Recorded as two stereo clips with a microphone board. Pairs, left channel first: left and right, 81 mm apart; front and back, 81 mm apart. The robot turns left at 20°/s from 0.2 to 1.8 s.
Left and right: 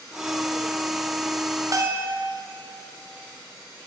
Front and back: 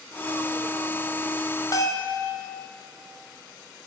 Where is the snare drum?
I don't hear a snare drum.